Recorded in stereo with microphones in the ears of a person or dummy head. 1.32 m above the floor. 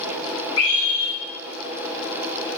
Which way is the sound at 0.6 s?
80° left.